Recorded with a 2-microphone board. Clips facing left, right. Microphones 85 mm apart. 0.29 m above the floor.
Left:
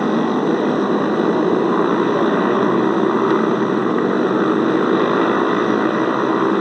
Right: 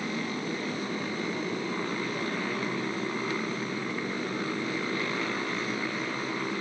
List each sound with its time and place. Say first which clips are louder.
0.0 s a motorcycle: left 16 dB; 55° left (ahead or behind)